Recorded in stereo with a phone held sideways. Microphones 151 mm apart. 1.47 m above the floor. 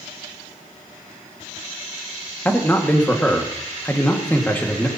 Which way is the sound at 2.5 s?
15° left (ahead or behind).